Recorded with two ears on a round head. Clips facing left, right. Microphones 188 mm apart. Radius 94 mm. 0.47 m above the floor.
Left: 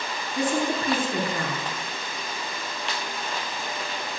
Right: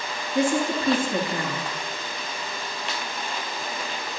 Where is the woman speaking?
25° right (ahead or behind), 5.5 m.